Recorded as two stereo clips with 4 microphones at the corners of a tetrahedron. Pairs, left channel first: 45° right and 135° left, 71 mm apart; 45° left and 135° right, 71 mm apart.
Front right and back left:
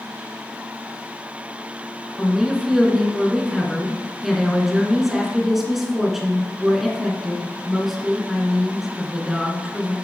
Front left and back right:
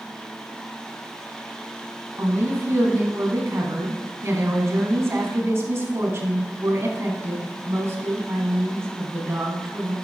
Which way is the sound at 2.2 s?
140° right.